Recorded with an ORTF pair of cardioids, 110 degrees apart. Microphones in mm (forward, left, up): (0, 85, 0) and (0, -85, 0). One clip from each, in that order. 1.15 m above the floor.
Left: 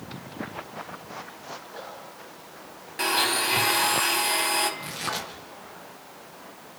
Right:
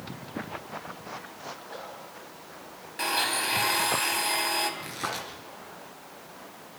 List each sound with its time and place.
3.0 s a blender: 10° left, 3.5 m
4.8 s tearing paper: 10° left, 8.5 m